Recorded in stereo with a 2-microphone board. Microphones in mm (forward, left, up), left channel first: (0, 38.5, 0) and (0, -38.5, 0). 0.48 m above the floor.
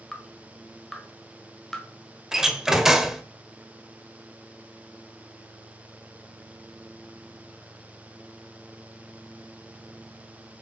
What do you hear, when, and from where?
0.1 s dripping: 5° left (ahead or behind), 1.4 m
2.3 s a door slam: 5° right (ahead or behind), 1.1 m